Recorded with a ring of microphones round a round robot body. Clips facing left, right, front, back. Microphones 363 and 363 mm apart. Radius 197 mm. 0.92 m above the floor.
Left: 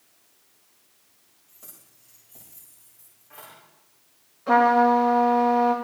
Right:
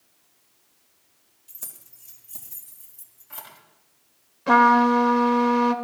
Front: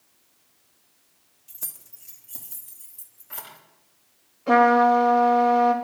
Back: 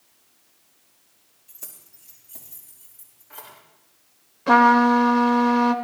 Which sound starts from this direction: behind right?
A trumpet, at 4.5 s.